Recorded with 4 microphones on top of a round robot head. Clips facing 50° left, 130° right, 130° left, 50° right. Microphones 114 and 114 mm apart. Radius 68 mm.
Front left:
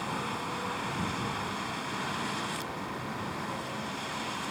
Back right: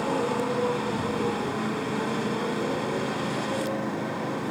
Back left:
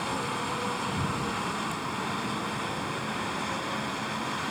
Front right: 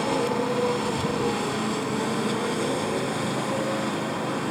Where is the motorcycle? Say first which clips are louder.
Back right 9 dB, front right 8 dB; 95° right.